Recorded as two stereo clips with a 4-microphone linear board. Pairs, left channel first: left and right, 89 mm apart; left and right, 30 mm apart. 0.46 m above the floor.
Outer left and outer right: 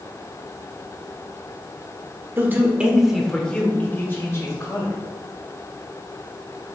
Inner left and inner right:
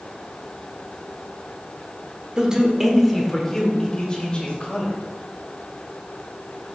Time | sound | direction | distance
2.4 | a man speaking | 25° right (ahead or behind) | 1.2 m